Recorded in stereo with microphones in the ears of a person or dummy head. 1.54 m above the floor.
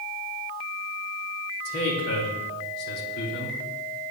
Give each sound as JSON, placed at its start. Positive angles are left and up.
{"t": 1.6, "sound": "a man speaking", "side_deg": 60, "distance_m": 2.5}